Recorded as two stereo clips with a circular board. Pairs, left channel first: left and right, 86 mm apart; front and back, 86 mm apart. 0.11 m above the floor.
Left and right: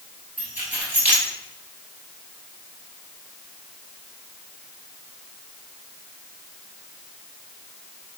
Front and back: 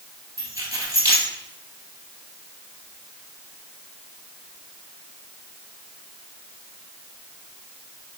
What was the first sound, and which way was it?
Keys jangling, 155° right.